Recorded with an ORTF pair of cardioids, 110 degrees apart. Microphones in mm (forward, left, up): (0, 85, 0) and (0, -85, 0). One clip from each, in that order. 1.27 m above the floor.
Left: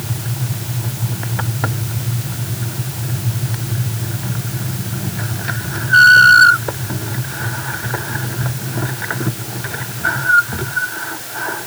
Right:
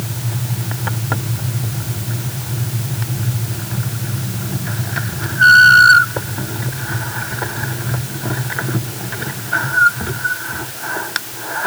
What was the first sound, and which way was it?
Only background noise.